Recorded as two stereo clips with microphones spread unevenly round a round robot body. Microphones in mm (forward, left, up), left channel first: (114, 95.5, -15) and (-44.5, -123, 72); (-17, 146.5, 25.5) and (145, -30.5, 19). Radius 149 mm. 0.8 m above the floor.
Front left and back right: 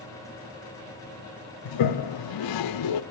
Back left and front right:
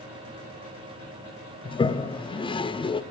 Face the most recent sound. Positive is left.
turn(degrees=60)